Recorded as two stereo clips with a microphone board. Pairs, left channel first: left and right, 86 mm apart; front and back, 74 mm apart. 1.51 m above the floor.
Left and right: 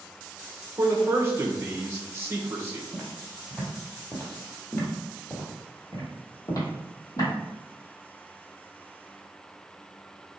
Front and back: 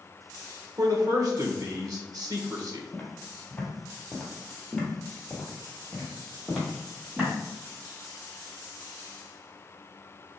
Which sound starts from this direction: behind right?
A man speaking, at 0.8 s.